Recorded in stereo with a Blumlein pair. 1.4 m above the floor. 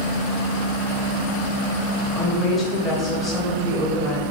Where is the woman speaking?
15° left, 1.4 m.